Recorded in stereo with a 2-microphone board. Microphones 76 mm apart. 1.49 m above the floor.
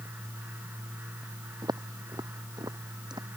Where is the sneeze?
No sneeze in this recording.